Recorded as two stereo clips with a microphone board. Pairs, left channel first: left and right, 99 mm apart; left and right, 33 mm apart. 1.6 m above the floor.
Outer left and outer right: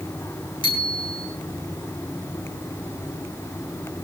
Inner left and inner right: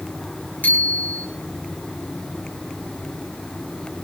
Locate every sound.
0.6 s a bicycle bell: 55° left (ahead or behind), 7 m